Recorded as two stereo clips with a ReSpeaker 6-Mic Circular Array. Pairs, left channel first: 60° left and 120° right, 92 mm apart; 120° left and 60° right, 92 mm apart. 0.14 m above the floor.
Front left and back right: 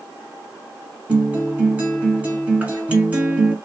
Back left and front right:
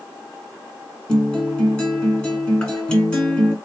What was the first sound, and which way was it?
A guitar, 170° right.